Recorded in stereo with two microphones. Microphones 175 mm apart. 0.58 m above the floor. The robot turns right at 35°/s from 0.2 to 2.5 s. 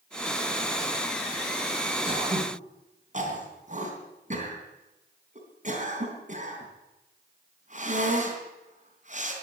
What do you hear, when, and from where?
2.0 s throat clearing: 30° right (ahead or behind), 3.5 m; by 9.3 s 45° right (ahead or behind), 3.5 m